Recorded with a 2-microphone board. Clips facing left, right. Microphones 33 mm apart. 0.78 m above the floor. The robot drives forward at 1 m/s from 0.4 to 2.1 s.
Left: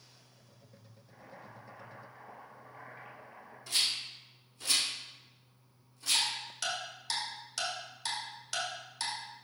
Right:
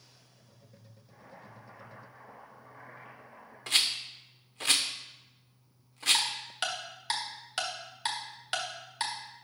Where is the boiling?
20° left (ahead or behind), 3.5 m; by 3.6 s 15° left (ahead or behind), 4.5 m.